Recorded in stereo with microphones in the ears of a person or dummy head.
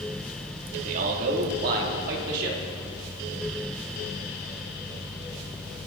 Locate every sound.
0.7 s a man speaking: 45° right (ahead or behind), 2.5 m; by 2.6 s 60° right (ahead or behind), 3.5 m